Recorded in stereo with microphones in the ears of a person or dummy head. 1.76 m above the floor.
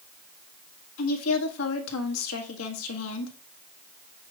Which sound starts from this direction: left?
A woman speaking, at 1.0 s.